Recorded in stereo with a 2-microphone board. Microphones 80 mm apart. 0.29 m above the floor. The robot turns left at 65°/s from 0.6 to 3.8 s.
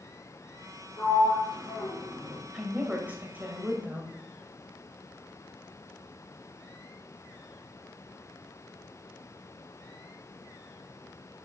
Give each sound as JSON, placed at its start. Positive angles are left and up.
{"t": 1.0, "sound": "a sliding door", "side_deg": 45, "distance_m": 4.0}
{"t": 2.5, "sound": "a woman speaking", "side_deg": -10, "distance_m": 1.3}